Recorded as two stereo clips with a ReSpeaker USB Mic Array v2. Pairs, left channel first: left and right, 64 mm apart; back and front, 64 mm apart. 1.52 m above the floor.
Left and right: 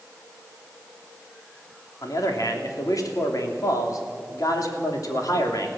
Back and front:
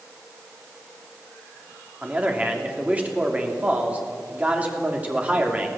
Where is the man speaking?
65° left, 3 m.